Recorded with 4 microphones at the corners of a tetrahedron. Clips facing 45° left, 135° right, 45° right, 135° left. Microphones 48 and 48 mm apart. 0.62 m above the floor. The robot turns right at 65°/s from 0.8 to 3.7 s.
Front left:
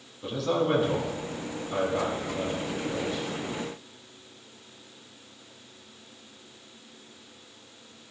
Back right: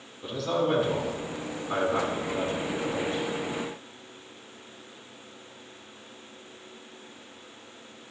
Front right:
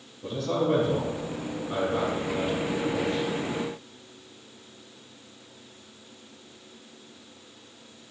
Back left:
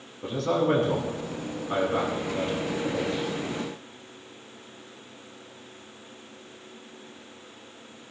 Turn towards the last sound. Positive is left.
turn(degrees=-40)